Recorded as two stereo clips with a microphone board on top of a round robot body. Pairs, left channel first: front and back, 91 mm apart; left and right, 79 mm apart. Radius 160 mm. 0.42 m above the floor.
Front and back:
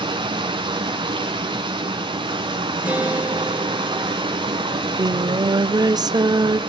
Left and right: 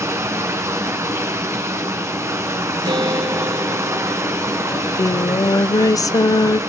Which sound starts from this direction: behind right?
Running water, at 0.0 s.